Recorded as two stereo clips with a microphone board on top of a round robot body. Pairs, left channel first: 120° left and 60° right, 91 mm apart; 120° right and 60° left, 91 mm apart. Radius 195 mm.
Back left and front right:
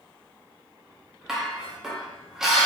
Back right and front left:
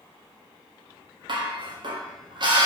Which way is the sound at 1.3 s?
25° left.